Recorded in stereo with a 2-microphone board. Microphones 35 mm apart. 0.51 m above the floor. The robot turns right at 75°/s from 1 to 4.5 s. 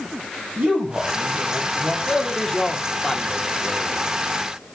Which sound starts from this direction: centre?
A man speaking, at 2.1 s.